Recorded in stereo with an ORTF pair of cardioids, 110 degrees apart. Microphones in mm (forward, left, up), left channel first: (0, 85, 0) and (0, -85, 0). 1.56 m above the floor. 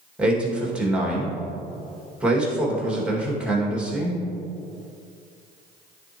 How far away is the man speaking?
About 2 m.